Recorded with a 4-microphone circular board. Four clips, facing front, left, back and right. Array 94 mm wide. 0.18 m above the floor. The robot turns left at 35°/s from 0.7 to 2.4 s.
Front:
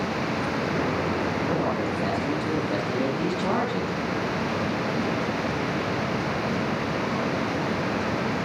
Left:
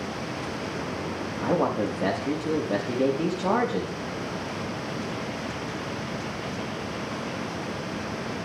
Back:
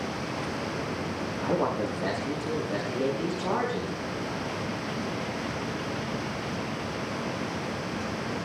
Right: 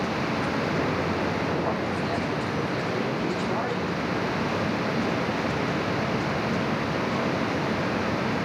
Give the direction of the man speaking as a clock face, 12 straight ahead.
9 o'clock.